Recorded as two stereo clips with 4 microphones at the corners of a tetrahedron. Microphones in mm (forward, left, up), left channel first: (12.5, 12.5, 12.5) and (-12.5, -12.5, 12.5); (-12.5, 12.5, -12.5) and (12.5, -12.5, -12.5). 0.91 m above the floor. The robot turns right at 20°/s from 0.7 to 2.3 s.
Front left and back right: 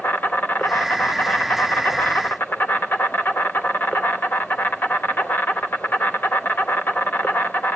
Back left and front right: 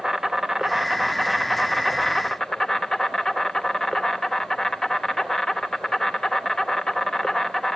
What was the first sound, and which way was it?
An insect, 25° left.